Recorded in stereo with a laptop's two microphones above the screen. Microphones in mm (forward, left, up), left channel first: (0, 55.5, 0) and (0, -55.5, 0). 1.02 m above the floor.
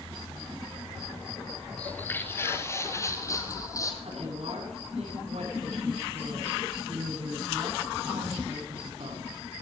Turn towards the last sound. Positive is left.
turn(degrees=-70)  # may be behind; listen again after turning